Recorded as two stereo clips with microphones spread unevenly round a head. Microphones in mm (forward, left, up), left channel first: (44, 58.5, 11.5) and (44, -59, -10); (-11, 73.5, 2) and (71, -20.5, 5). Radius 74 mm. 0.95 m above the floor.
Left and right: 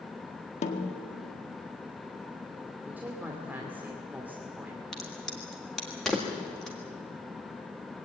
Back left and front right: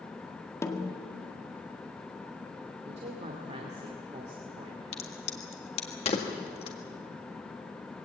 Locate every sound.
0.6 s a snare drum: 65° left, 1.9 m
2.9 s a woman speaking: 15° right, 2.5 m
4.9 s a crack: straight behind, 1.7 m